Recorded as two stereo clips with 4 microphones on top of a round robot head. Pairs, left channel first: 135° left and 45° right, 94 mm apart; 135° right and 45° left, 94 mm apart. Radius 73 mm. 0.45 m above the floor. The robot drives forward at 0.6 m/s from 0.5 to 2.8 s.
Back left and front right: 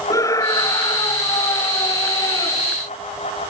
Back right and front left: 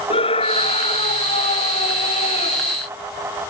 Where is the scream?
165° right.